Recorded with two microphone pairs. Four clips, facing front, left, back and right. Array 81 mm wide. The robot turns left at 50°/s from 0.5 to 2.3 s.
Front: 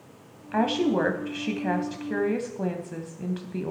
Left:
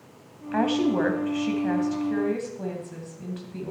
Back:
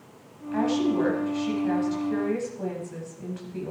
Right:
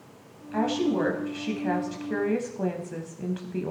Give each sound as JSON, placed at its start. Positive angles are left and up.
{"t": 0.5, "sound": "a woman speaking", "azimuth_deg": 50, "distance_m": 1.3}